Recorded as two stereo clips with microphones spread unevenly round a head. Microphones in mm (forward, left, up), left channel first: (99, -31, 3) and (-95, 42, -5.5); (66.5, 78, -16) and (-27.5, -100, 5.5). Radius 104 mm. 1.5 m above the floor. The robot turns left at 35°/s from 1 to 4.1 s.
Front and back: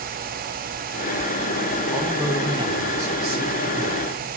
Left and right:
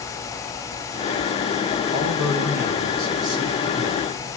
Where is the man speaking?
110° right, 4 m; by 4.3 s 175° left, 4 m.